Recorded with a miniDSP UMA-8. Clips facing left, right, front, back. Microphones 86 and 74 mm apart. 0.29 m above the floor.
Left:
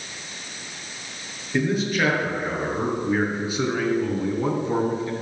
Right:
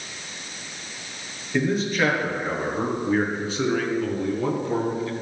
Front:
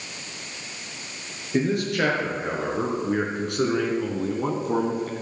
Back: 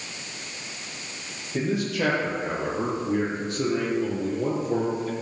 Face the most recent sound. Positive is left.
turn(degrees=25)